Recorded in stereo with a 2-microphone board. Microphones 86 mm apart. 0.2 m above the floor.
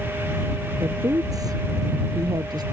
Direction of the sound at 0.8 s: 45° right (ahead or behind).